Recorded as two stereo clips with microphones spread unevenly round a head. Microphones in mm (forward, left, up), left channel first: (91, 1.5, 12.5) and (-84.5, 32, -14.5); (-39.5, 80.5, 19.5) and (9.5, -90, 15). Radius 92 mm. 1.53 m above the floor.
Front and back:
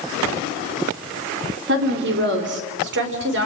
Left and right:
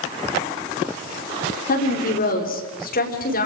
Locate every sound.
1.7 s a woman speaking: 145° left, 4.5 m